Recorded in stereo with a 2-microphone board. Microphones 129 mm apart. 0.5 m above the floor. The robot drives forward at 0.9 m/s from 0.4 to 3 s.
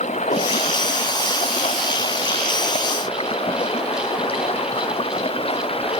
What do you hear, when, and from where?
0.0 s running water: 70° left (ahead or behind); by 6.0 s 50° left (ahead or behind)